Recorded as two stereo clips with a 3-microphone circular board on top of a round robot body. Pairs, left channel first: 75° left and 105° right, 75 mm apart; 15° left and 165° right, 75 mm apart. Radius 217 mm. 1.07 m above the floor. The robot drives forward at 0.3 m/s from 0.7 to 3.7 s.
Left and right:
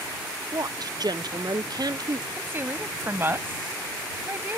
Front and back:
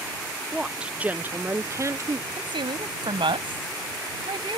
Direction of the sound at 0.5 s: 85° right.